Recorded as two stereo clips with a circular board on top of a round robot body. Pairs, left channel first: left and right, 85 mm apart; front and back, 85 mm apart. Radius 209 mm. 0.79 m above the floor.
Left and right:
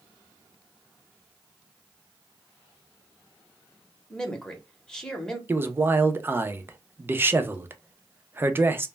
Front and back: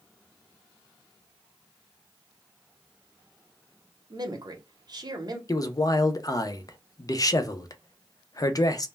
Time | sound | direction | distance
4.1 | a man speaking | 170° left | 1.0 m
5.5 | a man speaking | 30° right | 0.6 m